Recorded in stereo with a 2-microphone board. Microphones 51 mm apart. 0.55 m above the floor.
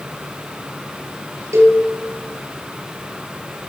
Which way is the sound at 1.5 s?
80° right.